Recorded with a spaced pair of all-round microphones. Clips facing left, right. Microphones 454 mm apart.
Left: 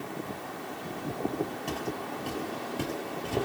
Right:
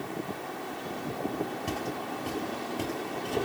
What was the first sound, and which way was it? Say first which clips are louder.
Footsteps: even; 25° right (ahead or behind).